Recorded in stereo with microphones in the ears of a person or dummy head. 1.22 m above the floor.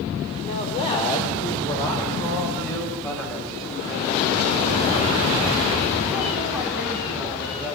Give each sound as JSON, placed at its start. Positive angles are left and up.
{"t": 0.4, "sound": "a man speaking", "side_deg": 40, "distance_m": 5.0}